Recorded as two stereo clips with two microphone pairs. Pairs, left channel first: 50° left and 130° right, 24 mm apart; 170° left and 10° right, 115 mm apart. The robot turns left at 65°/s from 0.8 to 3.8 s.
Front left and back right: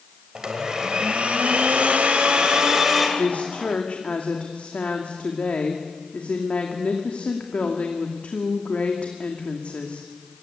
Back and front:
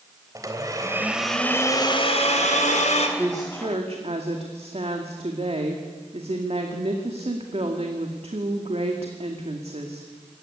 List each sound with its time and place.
0.3 s a blender: 70° right, 3 m; by 3.1 s 145° left, 3 m
3.2 s a woman speaking: 60° left, 2 m; by 10.1 s 20° left, 2 m